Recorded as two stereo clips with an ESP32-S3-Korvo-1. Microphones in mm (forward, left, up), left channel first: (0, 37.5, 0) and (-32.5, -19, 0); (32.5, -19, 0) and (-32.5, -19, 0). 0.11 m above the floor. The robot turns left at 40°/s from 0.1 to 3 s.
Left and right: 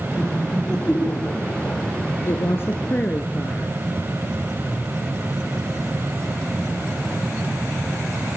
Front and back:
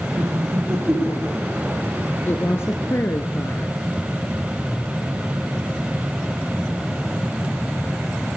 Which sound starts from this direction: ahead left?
A woman speaking, at 2.3 s.